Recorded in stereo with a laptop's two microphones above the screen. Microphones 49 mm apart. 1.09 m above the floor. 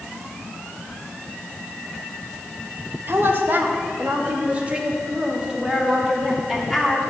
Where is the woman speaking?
55° right (ahead or behind), 1.3 m; by 7.1 s 5° right (ahead or behind), 3 m.